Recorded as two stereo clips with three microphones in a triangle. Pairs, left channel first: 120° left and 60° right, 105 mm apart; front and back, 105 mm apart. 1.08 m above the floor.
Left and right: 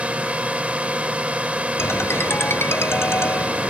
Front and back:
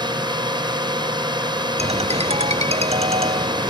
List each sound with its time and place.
0.0 s a drone: 140° right
1.8 s a ringtone: 175° right